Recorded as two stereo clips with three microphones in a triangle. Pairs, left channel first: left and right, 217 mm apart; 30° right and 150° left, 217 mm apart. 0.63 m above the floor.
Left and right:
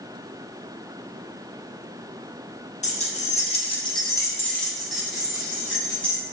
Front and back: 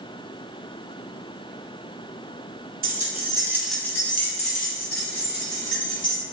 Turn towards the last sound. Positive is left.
turn(degrees=-10)